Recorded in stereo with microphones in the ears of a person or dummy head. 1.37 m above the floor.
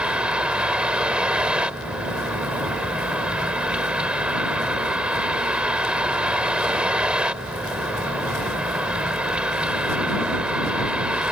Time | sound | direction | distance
0.0 | a vehicle | 10° right (ahead or behind) | ?